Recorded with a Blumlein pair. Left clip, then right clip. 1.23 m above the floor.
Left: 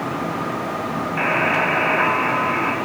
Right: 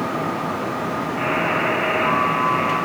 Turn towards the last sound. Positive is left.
turn(degrees=50)